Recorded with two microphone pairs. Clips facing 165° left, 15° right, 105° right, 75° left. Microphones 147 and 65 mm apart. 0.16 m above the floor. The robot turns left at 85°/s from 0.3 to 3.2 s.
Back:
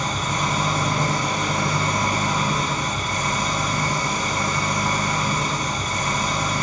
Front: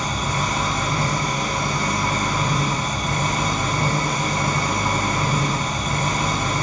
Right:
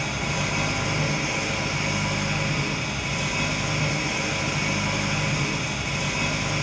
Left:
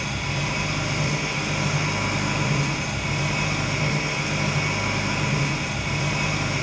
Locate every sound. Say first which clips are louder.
0.0 s an engine running: even, right 1 dB; 90° right, 3 m; by 6.6 s 20° left, 3 m